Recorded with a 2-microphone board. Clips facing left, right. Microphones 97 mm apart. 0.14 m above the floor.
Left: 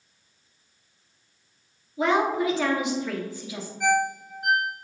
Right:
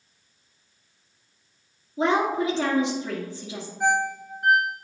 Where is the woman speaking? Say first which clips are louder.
Even; 30° right (ahead or behind), 2.5 m.